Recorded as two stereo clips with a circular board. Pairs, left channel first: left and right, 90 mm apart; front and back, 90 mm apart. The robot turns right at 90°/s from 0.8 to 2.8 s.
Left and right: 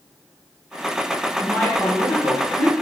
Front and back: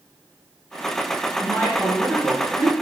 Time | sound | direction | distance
1.4 | a woman speaking | 25° left | 1.3 m